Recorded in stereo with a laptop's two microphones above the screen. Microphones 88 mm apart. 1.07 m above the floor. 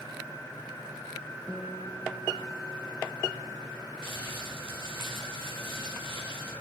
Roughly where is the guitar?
Centre.